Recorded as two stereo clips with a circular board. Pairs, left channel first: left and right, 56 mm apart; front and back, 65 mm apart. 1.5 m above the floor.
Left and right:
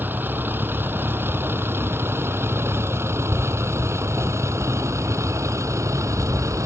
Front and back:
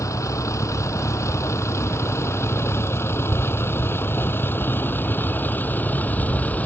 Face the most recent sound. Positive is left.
turn(degrees=-65)